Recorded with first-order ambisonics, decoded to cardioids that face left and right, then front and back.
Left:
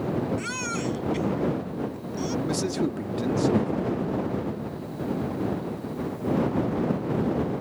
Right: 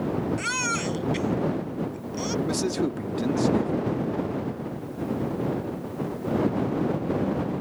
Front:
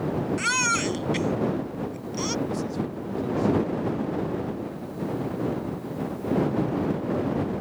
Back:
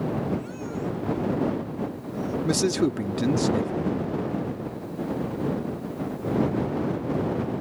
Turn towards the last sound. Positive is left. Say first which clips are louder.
# even, back 7 dB
turn(degrees=-175)